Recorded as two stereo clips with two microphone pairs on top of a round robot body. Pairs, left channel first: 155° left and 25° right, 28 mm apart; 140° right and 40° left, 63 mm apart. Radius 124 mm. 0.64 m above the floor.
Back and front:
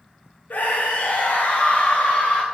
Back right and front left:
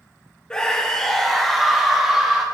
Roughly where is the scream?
Behind left.